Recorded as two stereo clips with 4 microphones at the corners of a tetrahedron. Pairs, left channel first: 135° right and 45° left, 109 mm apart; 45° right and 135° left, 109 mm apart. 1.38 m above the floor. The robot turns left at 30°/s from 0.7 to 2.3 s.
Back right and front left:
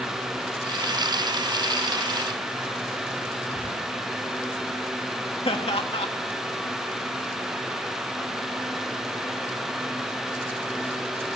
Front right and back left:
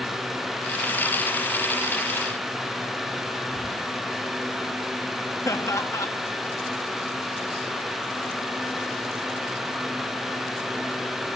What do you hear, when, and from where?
3.5 s whispering: 55° left, 7 m
5.5 s laughter: 105° right, 1.9 m